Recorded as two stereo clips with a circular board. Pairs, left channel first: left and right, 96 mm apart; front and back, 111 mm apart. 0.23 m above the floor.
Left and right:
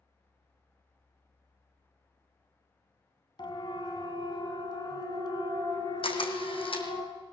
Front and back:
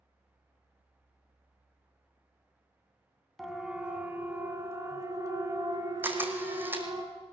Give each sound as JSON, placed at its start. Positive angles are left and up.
{"t": 3.4, "sound": "a siren", "azimuth_deg": 90, "distance_m": 2.5}
{"t": 6.0, "sound": "a camera shutter", "azimuth_deg": 110, "distance_m": 2.5}